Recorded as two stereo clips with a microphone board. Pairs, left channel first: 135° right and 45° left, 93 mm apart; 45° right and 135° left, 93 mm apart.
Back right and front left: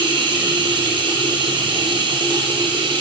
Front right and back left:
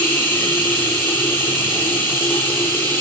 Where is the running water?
20° left, 1.3 m.